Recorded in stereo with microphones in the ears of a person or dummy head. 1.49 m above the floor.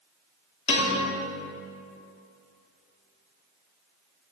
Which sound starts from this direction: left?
A piano, at 0.7 s.